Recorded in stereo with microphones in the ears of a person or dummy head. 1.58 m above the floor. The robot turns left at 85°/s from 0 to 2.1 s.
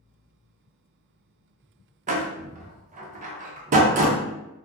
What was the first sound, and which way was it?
A door slam, 40° right (ahead or behind).